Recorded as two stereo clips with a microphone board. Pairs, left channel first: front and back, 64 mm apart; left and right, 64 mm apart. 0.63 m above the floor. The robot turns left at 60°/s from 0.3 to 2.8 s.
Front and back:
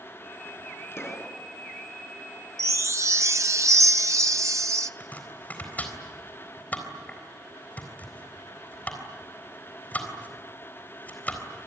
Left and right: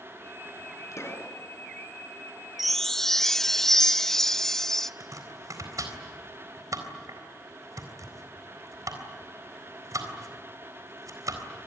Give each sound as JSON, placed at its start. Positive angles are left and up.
{"t": 0.9, "sound": "a pop", "azimuth_deg": 50, "distance_m": 3.5}
{"t": 2.6, "sound": "a chime", "azimuth_deg": -175, "distance_m": 0.6}
{"t": 5.0, "sound": "chopping", "azimuth_deg": -65, "distance_m": 3.5}